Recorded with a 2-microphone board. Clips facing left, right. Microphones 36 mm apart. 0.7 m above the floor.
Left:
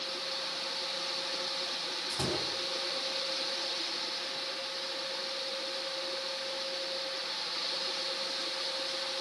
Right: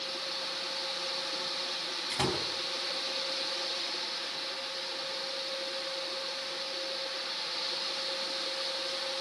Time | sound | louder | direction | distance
2.1 | a door slam | right 3 dB | 75° right (ahead or behind) | 5.5 m